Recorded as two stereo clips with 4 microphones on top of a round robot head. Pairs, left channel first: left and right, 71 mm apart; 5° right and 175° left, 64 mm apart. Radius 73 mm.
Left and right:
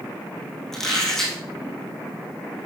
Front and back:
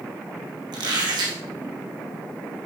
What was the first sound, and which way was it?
A squeak, 175° left.